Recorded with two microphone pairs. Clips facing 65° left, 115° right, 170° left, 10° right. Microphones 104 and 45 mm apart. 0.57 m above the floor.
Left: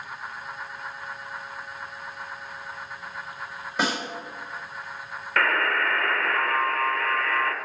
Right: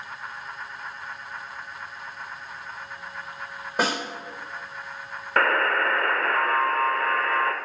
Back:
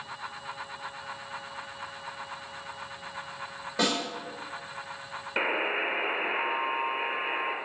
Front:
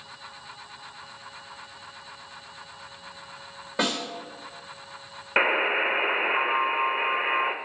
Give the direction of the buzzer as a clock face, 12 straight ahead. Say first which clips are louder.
Right 2 dB, front 6 dB; 2 o'clock.